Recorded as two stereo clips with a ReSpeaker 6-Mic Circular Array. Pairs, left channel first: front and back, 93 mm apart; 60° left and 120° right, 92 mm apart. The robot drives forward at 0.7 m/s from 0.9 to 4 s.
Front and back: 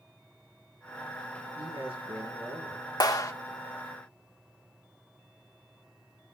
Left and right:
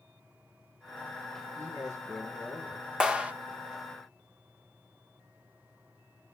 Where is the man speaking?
175° right, 5 m.